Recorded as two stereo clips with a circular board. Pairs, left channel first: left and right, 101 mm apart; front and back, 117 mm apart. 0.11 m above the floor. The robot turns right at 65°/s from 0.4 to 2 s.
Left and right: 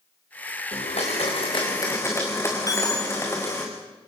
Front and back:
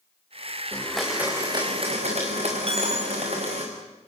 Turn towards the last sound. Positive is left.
turn(degrees=145)